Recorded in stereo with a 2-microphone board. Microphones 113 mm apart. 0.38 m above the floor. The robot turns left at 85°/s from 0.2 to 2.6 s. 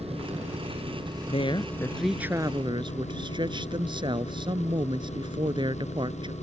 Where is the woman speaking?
65° left; by 6.3 s 45° right.